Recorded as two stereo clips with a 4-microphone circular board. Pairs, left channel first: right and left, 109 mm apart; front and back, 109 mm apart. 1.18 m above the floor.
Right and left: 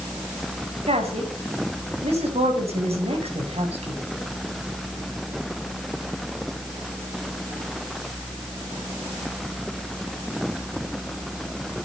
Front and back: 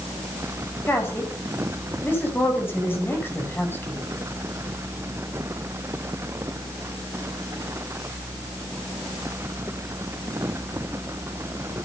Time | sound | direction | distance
0.9 | a woman speaking | 70° left | 8.5 m